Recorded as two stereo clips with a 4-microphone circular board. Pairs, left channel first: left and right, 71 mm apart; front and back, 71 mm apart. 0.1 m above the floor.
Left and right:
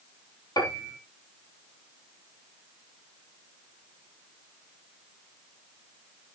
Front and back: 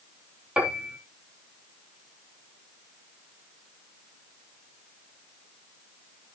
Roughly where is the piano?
Left.